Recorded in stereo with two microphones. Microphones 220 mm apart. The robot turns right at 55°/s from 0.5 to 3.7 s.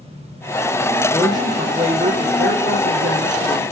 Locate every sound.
1.1 s a man speaking: 170° left, 4 m; by 3.6 s 55° right, 4 m